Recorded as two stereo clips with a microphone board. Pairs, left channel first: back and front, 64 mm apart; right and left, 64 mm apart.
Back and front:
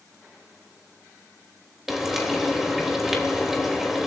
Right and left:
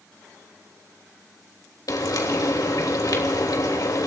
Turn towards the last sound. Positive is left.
turn(degrees=-85)